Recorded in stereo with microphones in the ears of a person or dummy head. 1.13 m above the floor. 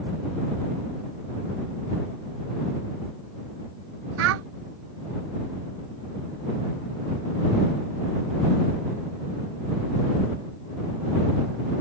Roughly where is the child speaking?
Right.